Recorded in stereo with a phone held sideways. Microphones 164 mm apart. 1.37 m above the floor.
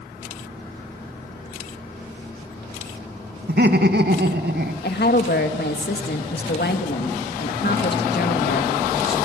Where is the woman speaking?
75° left (ahead or behind), 2.0 m.